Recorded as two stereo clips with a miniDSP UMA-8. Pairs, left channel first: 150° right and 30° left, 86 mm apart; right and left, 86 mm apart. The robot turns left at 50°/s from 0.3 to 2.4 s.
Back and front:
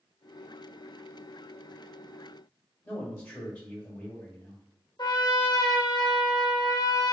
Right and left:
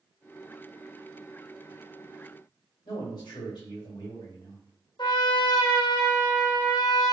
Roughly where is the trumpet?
Behind right.